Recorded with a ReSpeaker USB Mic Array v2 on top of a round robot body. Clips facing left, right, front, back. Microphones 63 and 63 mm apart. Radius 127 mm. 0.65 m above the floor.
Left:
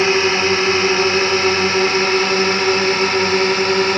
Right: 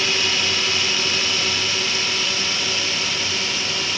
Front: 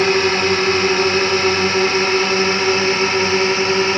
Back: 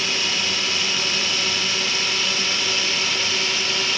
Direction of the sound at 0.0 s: 40° left.